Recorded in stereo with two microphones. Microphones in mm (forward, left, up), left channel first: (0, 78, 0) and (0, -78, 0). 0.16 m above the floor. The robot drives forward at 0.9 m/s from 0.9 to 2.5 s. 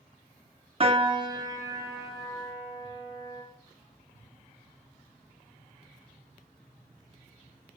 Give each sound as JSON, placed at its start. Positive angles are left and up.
{"t": 0.8, "sound": "a piano", "side_deg": -35, "distance_m": 0.5}